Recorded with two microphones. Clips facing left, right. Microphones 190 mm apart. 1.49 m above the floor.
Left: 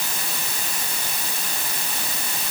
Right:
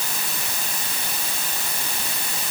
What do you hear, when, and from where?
Only background noise.